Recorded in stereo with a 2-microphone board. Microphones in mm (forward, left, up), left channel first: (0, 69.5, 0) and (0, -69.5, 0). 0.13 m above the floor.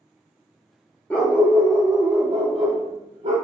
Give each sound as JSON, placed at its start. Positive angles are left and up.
{"t": 1.1, "sound": "a dog barking", "side_deg": 10, "distance_m": 0.5}